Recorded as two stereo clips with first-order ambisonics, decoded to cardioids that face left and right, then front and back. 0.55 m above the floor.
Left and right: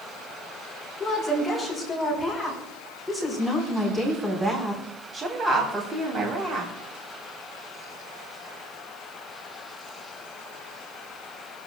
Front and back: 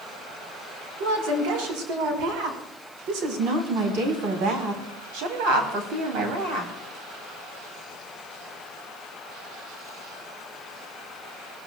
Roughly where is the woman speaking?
Behind.